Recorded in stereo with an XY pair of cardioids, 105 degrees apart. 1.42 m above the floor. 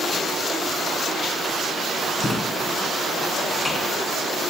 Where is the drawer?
20° left, 4.5 m.